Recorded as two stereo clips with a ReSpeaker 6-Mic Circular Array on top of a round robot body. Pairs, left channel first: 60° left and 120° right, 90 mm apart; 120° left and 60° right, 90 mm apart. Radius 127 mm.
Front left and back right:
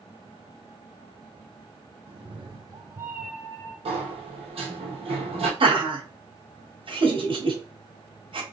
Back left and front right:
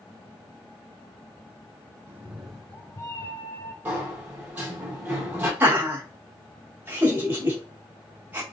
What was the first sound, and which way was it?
A cat meowing, 125° right.